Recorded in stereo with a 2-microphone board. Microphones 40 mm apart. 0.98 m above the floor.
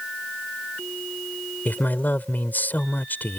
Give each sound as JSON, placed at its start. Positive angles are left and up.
{"t": 1.6, "sound": "a man speaking", "side_deg": 50}